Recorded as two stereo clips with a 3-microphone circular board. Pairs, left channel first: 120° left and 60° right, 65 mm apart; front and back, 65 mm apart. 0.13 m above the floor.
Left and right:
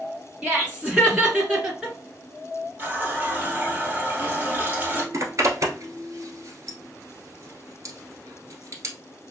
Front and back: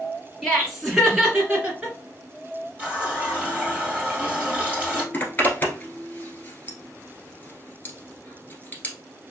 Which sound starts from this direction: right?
Laughter, at 0.4 s.